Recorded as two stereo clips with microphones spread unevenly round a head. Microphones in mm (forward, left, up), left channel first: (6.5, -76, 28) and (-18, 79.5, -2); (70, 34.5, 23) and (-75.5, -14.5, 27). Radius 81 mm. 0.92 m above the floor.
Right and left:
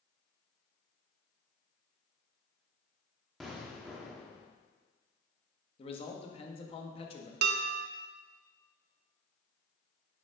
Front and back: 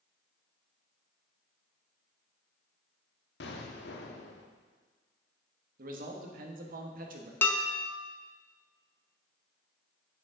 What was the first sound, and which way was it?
An explosion, 10° left.